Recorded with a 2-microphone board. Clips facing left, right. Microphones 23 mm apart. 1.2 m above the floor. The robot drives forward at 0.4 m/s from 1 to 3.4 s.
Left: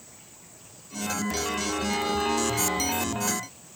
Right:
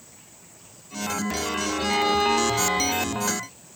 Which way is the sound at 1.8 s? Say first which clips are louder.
Right 7 dB; 30° right (ahead or behind).